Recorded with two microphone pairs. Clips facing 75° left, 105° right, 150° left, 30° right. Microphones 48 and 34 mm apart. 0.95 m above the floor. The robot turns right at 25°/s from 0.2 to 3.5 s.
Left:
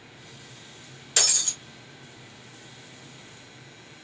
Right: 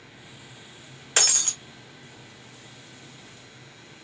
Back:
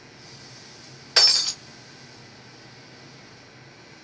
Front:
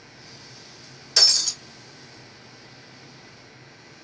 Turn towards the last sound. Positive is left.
turn(degrees=-95)